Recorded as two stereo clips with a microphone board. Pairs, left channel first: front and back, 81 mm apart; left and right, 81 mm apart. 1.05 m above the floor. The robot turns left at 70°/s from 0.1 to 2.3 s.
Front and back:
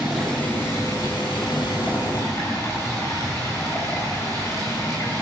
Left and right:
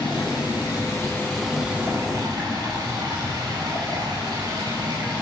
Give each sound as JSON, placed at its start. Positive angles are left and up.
{"t": 0.0, "sound": "running water", "azimuth_deg": 100, "distance_m": 9.5}